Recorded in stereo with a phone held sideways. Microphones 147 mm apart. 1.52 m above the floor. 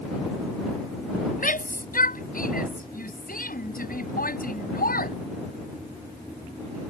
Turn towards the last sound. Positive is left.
turn(degrees=80)